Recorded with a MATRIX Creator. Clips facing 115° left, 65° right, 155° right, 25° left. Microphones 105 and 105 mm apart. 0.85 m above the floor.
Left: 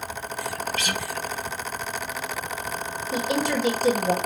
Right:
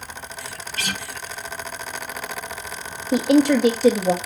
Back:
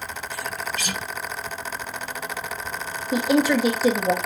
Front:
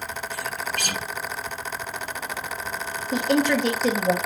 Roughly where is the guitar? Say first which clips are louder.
Left 2 dB, even; ahead.